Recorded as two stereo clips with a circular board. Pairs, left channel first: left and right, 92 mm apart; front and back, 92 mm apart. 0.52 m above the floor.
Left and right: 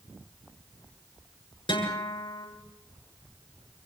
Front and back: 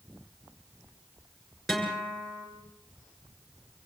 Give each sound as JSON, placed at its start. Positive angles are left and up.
{"t": 1.7, "sound": "a guitar", "azimuth_deg": 90, "distance_m": 7.0}